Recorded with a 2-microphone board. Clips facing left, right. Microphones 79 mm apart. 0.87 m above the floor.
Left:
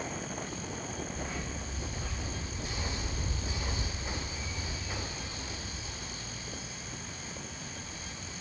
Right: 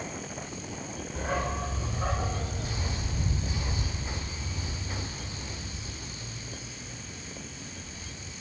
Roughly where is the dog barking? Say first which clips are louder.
Right 8 dB; right.